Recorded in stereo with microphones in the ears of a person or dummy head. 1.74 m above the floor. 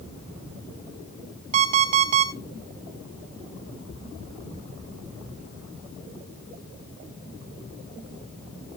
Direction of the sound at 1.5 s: 45° right (ahead or behind).